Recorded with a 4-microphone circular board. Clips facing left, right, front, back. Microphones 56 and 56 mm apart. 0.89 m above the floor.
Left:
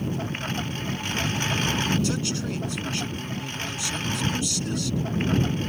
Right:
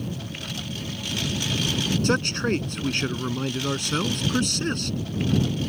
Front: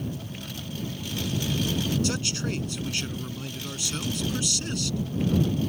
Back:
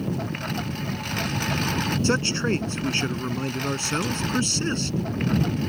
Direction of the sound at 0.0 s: 145° left.